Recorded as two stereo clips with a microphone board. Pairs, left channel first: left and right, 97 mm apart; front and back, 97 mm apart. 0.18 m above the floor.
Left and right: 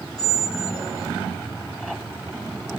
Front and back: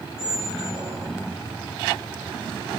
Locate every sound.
0.2 s a squeak: 95° right, 1.8 m